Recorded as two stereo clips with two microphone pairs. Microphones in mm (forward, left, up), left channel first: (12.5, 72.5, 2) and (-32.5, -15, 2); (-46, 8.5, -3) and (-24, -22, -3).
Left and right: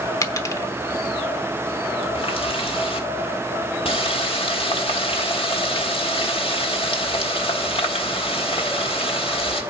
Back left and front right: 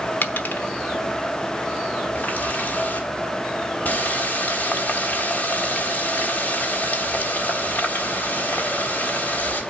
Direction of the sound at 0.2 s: 115° left.